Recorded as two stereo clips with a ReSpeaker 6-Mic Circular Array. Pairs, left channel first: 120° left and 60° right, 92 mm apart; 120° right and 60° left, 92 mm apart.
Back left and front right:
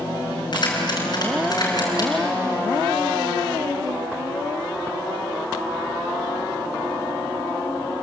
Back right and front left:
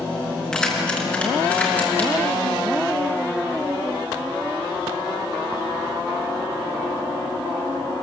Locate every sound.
0.5 s keys jangling: 160° left, 5 m; by 2.1 s 170° left, 5.5 m